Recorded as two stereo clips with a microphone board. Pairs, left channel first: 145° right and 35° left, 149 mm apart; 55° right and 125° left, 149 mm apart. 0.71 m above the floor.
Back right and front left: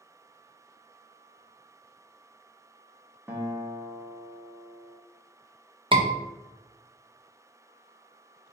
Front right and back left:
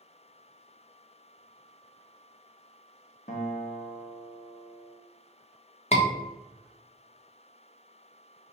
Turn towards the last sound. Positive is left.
turn(degrees=-15)